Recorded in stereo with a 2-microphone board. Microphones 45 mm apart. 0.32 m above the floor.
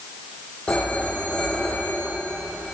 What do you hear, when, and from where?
0.7 s a phone ringing: 20° left (ahead or behind), 9.5 m